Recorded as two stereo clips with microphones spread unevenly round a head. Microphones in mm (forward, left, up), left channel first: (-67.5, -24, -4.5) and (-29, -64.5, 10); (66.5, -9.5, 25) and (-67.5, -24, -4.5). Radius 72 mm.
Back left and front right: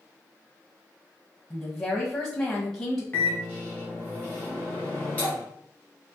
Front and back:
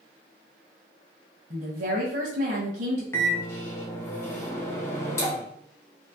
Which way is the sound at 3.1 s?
55° left.